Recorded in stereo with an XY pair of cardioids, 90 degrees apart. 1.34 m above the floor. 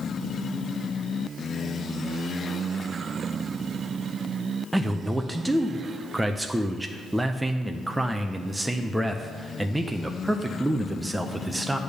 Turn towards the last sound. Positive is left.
turn(degrees=-10)